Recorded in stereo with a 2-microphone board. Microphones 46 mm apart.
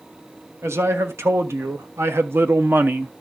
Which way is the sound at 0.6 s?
85° right.